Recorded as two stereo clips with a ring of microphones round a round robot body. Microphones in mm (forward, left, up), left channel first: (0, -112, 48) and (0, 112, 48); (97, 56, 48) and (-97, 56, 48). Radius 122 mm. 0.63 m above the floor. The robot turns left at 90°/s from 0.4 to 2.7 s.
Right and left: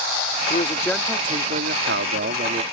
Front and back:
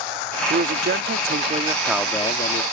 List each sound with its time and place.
0.5 s a man speaking: 135° right; by 2.6 s 30° left